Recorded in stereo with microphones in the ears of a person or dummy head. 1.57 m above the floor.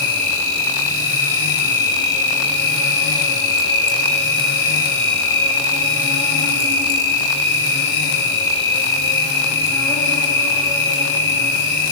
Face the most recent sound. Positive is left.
turn(degrees=15)  # may be behind; listen again after turning